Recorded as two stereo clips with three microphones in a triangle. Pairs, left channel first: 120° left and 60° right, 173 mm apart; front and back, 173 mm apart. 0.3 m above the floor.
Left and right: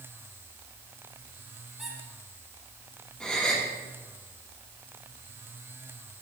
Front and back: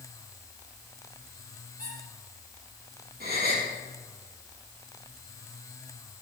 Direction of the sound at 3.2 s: 155° right.